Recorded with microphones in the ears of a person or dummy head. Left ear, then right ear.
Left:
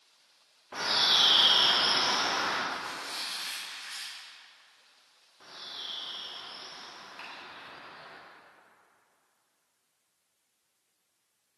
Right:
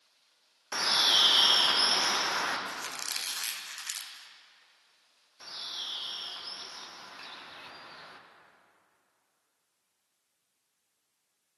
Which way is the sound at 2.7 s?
70° right (ahead or behind).